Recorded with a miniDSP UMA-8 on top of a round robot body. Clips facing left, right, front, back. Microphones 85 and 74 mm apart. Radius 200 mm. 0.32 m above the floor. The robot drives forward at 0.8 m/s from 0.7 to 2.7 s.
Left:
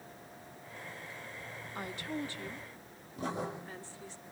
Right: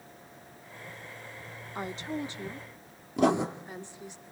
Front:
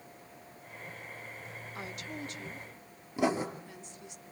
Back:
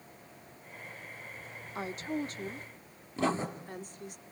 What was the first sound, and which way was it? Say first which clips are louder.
A woman speaking: right 4 dB, back 8 dB; 140° right.